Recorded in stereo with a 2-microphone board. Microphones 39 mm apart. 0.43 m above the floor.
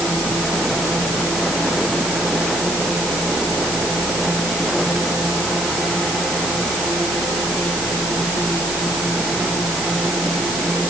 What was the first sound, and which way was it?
Only background noise.